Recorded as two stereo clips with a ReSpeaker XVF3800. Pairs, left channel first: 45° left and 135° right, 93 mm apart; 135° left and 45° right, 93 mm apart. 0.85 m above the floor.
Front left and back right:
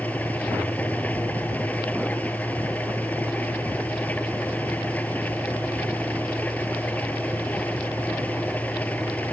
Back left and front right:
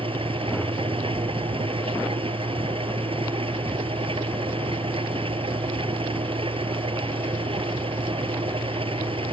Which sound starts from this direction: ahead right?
An engine running, at 0.0 s.